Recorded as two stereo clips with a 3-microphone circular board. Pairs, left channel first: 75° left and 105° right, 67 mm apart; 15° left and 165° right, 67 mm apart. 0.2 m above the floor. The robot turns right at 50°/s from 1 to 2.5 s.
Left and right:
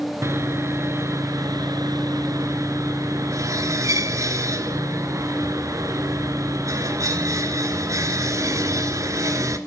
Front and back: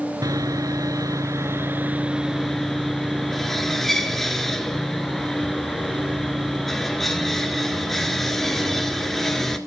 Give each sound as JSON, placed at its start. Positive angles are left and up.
{"t": 0.2, "sound": "sawing", "azimuth_deg": -145, "distance_m": 1.2}